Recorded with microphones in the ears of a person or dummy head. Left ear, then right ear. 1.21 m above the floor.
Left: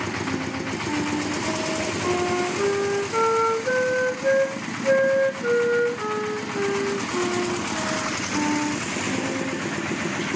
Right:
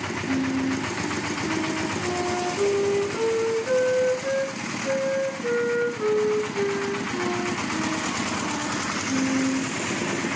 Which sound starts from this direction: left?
A flute, at 0.3 s.